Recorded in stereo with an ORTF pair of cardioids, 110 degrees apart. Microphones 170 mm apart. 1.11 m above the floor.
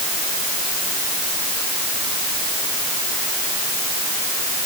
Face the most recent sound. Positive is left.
No sound to turn to.